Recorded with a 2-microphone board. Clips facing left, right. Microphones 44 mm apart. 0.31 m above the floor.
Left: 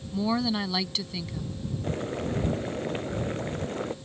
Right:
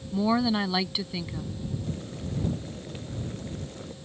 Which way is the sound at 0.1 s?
15° right (ahead or behind).